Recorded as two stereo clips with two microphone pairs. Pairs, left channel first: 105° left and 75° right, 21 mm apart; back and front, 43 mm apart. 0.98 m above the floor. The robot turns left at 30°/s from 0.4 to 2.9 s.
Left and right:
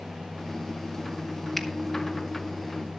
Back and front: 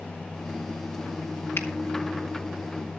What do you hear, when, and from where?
1.6 s a finger snap: 175° right, 1.3 m; by 1.7 s straight behind, 1.3 m